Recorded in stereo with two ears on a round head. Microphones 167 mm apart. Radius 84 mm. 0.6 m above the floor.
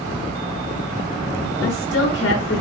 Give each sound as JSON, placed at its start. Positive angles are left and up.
{"t": 1.6, "sound": "a woman speaking", "side_deg": 65, "distance_m": 5.5}